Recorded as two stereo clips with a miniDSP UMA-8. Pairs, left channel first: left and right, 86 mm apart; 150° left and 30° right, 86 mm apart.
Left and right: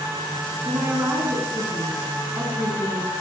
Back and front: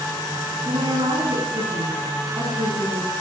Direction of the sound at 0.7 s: 20° right.